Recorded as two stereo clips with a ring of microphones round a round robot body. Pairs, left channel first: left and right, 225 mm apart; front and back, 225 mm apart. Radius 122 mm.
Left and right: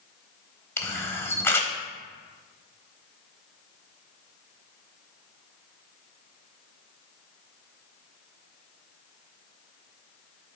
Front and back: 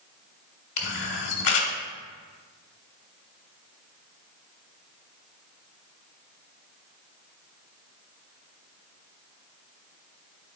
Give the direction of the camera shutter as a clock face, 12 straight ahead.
12 o'clock.